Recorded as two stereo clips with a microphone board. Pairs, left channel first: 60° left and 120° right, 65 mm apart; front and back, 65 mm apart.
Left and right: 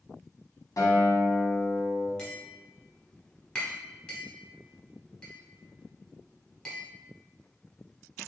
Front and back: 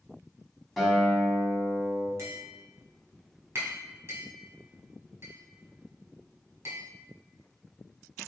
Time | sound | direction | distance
0.8 | a guitar | 90° left | 1.1 m
2.2 | tapping | 135° left | 1.2 m